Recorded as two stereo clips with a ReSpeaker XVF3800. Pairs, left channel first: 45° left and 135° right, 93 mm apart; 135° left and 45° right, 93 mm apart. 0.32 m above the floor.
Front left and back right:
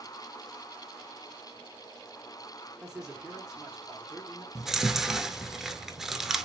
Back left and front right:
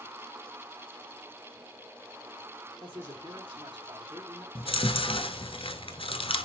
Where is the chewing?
140° left, 0.7 m.